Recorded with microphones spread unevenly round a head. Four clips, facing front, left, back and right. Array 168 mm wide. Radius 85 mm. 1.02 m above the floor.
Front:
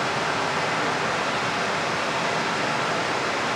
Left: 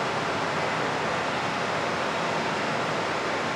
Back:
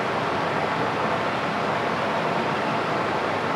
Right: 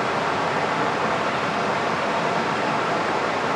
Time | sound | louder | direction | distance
0.0 | running water | right 5 dB, back 1 dB | 110° right | 1.0 m